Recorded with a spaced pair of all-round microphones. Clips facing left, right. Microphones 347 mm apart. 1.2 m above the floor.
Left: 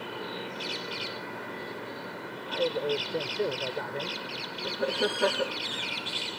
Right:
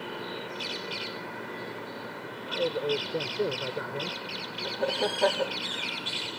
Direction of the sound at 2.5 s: 10° right (ahead or behind).